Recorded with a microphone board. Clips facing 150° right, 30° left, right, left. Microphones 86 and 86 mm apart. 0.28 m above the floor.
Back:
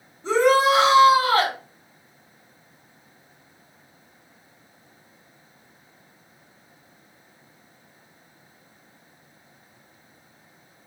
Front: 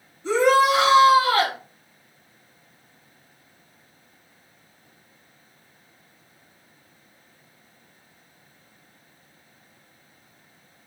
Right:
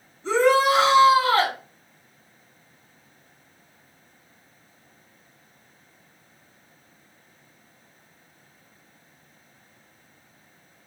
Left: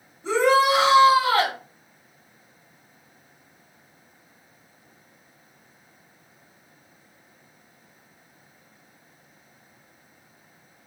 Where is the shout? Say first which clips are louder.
Even, even; 165° left, 1.3 m.